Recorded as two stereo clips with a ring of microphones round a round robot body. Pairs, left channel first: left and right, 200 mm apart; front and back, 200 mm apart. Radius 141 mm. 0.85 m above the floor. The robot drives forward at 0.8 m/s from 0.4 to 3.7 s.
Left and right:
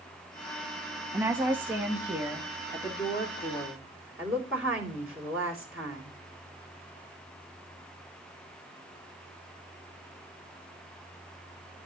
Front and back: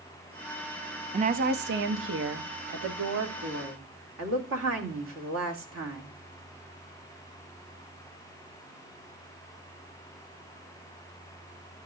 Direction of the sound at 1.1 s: 160° right.